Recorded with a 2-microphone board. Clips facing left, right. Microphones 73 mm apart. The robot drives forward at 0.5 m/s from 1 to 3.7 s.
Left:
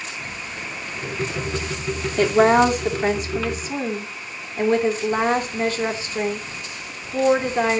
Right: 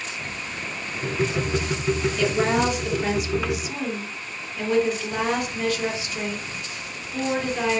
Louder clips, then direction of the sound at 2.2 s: Left 10 dB; 45° left (ahead or behind).